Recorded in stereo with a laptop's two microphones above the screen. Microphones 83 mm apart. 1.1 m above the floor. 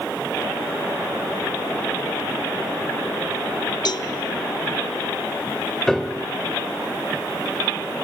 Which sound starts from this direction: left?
A cowbell, at 3.9 s.